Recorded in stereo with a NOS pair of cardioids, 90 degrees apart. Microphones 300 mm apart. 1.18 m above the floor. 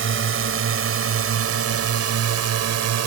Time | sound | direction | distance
0.0 | a drone | 45° right | ?